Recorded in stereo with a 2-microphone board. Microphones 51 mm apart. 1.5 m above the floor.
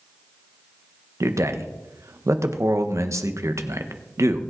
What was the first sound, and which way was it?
A man speaking, 75° right (ahead or behind).